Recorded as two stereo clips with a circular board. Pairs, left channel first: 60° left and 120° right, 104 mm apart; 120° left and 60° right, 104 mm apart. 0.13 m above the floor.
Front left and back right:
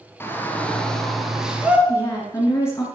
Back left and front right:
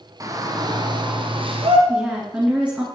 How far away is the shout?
About 2.5 m.